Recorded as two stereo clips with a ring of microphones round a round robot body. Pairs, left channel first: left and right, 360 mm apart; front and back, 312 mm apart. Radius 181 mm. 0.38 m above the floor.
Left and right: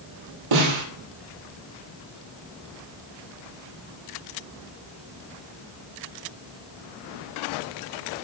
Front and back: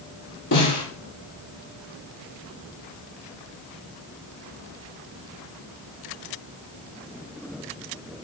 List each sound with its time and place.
0.5 s a snare drum: 65° right, 7.5 m